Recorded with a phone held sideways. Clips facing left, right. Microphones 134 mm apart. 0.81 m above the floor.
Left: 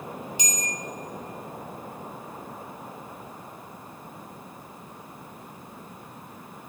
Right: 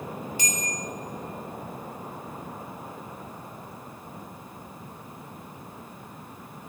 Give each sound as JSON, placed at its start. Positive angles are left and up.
{"t": 0.4, "sound": "a bell", "side_deg": 20, "distance_m": 1.6}